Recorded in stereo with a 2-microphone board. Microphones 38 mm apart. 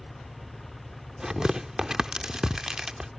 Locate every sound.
0.0 s an engine running: centre (ahead or behind)
1.2 s tearing paper: 15° right (ahead or behind)